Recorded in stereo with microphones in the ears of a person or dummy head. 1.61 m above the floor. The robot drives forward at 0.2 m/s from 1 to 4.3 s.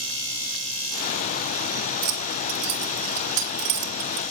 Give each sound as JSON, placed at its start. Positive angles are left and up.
{"t": 2.0, "sound": "keys jangling", "side_deg": -70, "distance_m": 3.0}